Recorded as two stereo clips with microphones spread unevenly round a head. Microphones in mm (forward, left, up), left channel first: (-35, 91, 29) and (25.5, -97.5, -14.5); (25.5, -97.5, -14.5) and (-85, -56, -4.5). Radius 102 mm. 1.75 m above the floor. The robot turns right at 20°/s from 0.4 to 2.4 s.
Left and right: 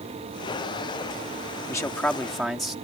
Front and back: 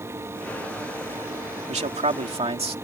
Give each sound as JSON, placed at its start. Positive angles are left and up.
{"t": 1.7, "sound": "a man speaking", "azimuth_deg": 180}